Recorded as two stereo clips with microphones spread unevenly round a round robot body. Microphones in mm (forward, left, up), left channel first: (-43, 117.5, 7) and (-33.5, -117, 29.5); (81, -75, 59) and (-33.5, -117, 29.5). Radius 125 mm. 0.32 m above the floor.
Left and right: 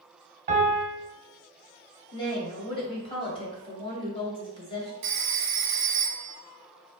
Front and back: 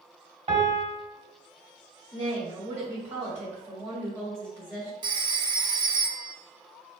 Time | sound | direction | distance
0.5 | a piano | 135° right | 1.2 m
2.1 | a woman speaking | 150° left | 1.8 m
5.0 | a phone ringing | 120° right | 0.9 m